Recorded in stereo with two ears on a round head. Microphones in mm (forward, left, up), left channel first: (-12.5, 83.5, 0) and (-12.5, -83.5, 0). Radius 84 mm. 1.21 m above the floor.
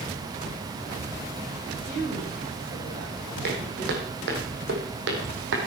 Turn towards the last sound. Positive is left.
turn(degrees=-70)  # may be behind; listen again after turning